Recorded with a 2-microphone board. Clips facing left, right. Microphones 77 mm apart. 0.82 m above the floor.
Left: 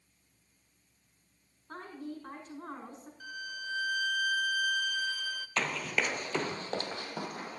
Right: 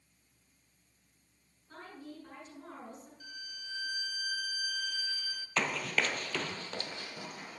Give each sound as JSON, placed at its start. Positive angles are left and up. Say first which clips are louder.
{"t": 1.7, "sound": "a woman speaking", "louder": "left 6 dB", "side_deg": 65, "distance_m": 6.5}
{"t": 3.2, "sound": "a violin", "louder": "left 8 dB", "side_deg": 65, "distance_m": 0.7}
{"t": 5.6, "sound": "running footsteps", "louder": "even", "side_deg": -10, "distance_m": 1.0}